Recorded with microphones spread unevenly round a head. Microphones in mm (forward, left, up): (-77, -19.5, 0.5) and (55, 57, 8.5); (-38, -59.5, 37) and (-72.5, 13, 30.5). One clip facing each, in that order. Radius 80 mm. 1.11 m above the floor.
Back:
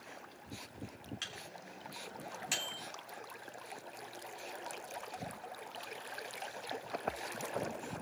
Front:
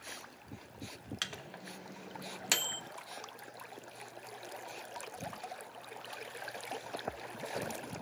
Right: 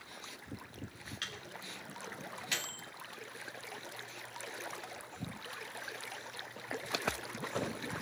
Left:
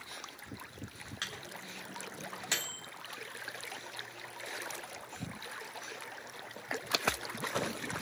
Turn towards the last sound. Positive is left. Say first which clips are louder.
# front 2 dB, left 3 dB
turn(degrees=50)